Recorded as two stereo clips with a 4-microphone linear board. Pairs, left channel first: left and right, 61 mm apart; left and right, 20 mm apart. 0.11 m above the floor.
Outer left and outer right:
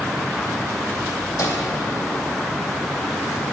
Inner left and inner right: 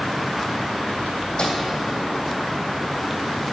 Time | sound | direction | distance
1.4 | a microwave | 70° left (ahead or behind) | 3 m